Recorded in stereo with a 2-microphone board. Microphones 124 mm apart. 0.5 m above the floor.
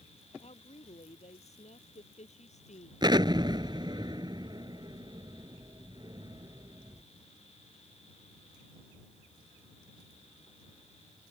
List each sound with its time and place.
0.4 s a woman speaking: 55° left (ahead or behind); by 2.9 s 70° left (ahead or behind)
3.0 s an explosion: 35° right (ahead or behind)